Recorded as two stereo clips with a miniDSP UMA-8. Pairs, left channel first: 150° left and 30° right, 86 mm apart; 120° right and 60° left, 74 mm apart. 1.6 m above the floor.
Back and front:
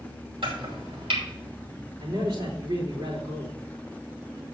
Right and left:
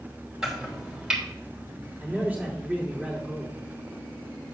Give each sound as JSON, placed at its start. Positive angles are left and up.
{"t": 0.4, "sound": "chopping", "azimuth_deg": -25, "distance_m": 3.0}
{"t": 2.0, "sound": "a man speaking", "azimuth_deg": -10, "distance_m": 3.0}